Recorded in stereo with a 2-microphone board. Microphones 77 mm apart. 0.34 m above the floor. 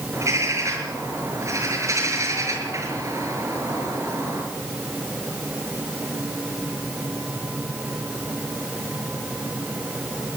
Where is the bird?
40° right (ahead or behind), 6.5 m.